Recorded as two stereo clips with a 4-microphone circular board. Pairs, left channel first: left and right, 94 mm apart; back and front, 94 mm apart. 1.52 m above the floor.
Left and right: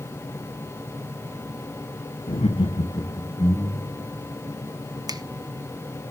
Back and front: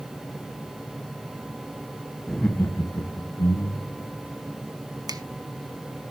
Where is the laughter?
90° left, 1.3 m; by 4.0 s 150° left, 3 m.